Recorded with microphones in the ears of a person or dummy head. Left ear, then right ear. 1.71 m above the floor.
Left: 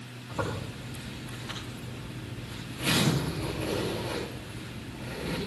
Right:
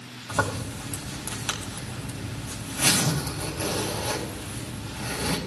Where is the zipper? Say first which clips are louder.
Right 7 dB; 55° right (ahead or behind), 3 m.